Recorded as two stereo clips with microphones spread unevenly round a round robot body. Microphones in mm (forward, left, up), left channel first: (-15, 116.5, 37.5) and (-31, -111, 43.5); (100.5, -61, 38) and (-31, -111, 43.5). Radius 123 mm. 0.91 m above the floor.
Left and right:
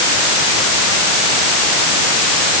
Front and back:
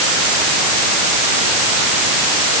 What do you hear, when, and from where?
Only background noise.